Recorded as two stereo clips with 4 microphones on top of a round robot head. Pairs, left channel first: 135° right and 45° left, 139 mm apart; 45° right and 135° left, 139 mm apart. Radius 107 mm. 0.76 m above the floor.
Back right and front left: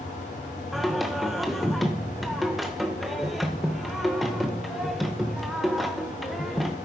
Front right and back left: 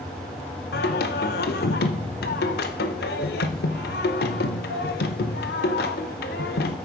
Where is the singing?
45° right, 0.6 m.